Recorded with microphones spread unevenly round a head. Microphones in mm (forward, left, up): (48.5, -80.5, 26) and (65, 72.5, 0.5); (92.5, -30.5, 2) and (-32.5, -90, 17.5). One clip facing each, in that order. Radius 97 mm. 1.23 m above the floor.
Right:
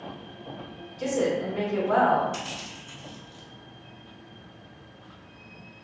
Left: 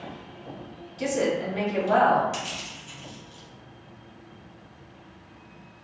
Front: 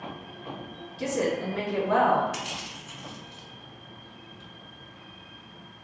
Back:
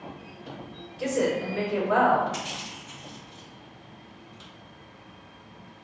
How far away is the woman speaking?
About 2.0 m.